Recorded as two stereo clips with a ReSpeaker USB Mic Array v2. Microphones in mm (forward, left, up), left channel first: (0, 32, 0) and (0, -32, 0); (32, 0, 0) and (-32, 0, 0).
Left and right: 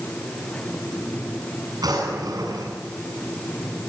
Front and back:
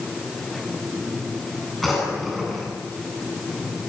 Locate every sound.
1.8 s a drawer: 90° right, 8 m